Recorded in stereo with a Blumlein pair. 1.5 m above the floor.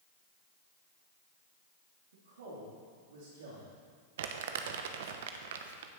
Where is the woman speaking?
65° right, 3 m.